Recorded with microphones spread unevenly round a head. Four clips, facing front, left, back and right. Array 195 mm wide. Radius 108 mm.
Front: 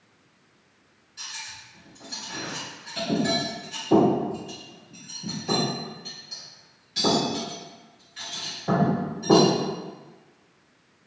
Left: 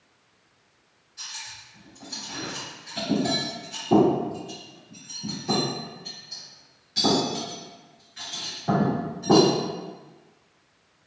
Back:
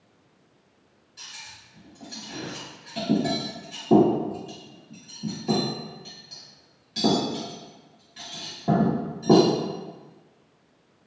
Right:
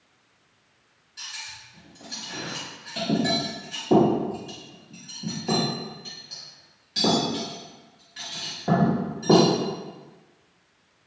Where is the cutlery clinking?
160° right, 1.2 m.